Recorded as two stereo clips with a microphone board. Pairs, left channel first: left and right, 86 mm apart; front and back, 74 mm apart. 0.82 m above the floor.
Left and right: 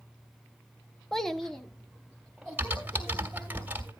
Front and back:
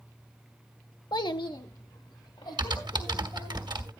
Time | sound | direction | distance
1.1 | a child speaking | 5° left | 0.6 m
2.6 | typing on a keyboard | 160° right | 1.5 m